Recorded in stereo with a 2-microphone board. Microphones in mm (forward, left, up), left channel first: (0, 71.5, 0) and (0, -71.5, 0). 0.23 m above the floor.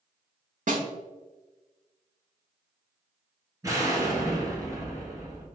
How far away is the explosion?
About 1.2 m.